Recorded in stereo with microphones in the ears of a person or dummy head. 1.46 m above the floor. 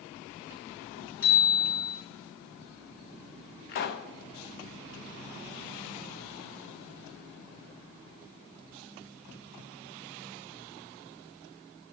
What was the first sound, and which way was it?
A bicycle bell, 75° left (ahead or behind).